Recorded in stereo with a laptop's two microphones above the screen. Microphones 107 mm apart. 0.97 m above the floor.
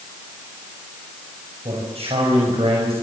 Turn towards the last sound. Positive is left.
turn(degrees=-75)  # may be behind; listen again after turning